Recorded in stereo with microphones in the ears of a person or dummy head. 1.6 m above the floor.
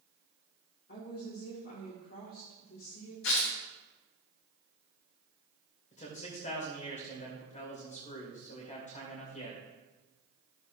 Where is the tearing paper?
65° left (ahead or behind), 1.4 m.